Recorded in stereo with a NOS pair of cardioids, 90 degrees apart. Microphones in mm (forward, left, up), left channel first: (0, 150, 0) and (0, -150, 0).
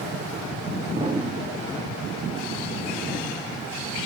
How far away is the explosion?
About 2.5 m.